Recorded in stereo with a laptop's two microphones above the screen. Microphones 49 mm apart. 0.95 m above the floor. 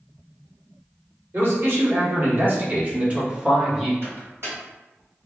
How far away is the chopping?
I don't hear chopping.